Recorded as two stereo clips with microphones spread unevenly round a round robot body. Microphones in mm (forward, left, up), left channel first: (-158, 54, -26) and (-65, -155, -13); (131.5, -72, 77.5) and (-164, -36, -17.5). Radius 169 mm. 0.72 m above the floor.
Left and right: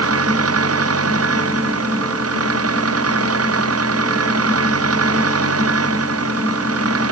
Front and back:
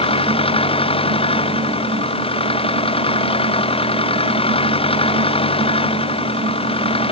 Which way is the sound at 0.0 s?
80° right.